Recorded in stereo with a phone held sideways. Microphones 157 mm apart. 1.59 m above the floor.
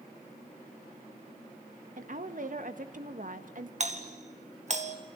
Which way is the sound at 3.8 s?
50° right (ahead or behind).